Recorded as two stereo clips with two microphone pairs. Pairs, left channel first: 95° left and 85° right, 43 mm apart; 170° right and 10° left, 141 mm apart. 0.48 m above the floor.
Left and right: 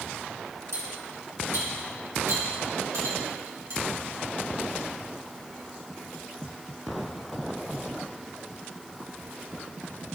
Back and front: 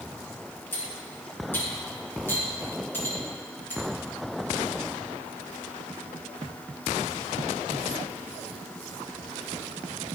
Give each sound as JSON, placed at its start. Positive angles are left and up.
{"t": 0.7, "sound": "cutlery clinking", "azimuth_deg": -95, "distance_m": 3.0}